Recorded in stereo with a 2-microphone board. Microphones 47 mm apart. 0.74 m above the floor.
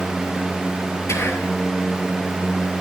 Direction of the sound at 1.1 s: 75° left (ahead or behind).